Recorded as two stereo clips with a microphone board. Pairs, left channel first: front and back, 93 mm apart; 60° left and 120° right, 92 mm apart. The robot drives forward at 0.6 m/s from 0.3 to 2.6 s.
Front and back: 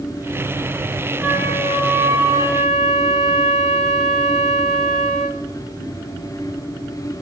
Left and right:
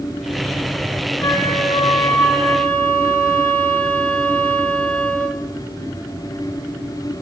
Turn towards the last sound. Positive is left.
turn(degrees=130)